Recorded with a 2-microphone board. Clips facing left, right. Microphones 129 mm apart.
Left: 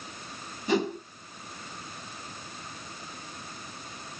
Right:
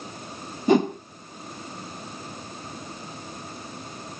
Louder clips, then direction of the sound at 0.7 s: Right 7 dB; 50° right (ahead or behind).